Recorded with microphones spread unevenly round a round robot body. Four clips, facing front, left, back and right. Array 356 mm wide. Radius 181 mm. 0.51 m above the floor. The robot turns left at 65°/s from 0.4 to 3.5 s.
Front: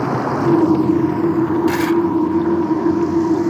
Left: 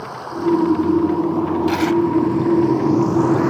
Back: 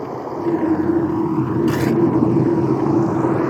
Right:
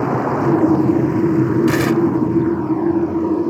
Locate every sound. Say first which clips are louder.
0.0 s running water: right 6 dB, front 5 dB; 45° right; by 3.5 s 115° left
1.7 s tearing paper: right 1 dB, front 1 dB; 115° right; by 2.0 s 135° right